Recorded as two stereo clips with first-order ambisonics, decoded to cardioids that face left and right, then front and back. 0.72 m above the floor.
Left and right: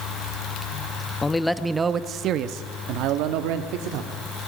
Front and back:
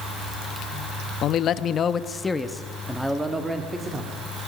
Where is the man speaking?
20° left, 0.8 m; by 4.1 s 100° right, 1.8 m.